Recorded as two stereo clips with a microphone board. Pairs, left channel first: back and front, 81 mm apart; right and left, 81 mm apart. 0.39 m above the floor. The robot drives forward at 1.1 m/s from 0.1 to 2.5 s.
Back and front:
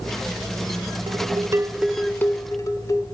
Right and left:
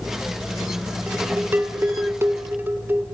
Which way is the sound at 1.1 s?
20° left.